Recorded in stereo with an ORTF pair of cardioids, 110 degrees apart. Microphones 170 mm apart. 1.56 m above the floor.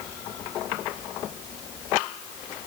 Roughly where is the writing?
No writing in this recording.